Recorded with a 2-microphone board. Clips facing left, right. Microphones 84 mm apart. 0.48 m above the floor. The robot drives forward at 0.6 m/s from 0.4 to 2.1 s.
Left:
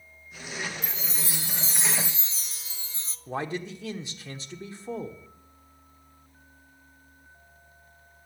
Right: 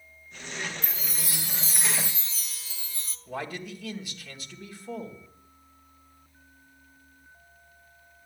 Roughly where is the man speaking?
Left.